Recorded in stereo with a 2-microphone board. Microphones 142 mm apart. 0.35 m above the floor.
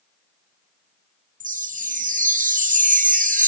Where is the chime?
80° right.